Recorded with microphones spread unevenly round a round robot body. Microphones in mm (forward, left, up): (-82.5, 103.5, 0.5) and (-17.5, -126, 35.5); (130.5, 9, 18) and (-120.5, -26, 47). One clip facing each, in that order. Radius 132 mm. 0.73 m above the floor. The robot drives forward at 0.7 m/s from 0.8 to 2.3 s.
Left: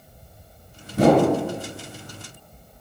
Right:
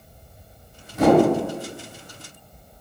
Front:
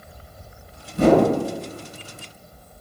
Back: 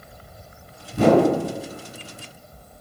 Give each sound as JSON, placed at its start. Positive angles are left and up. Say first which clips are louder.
{"t": 0.9, "sound": "a whoosh", "louder": "right 1 dB, front 1 dB", "azimuth_deg": 160, "distance_m": 1.2}